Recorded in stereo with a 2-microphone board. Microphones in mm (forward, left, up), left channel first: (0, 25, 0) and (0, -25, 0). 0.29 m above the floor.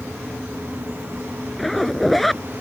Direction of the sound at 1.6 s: Centre (ahead or behind).